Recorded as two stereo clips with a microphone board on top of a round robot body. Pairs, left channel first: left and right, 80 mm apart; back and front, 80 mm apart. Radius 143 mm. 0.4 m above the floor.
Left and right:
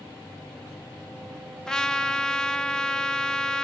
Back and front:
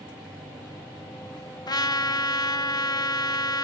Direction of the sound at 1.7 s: 170° left.